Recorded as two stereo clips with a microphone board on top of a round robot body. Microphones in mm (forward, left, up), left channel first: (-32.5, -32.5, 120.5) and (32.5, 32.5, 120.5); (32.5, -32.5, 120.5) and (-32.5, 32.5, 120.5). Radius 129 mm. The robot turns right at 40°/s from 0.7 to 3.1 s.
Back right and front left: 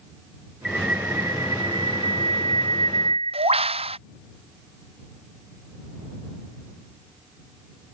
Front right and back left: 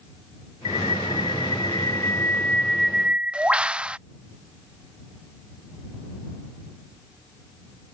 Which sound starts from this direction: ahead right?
A bird, at 0.7 s.